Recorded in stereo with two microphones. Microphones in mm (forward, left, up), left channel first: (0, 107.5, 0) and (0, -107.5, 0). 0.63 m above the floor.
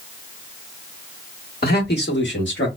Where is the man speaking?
50° left (ahead or behind), 1.1 m; by 2.7 s 60° left (ahead or behind), 1.2 m.